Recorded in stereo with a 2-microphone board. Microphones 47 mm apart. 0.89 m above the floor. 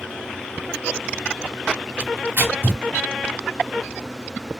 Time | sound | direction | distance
2.0 | tearing paper | 50° right (ahead or behind) | 1.5 m